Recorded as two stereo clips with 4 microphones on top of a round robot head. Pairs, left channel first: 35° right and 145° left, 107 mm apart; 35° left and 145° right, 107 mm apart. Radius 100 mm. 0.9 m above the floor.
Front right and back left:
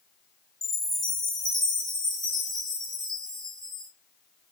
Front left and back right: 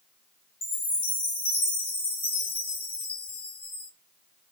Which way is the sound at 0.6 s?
50° left.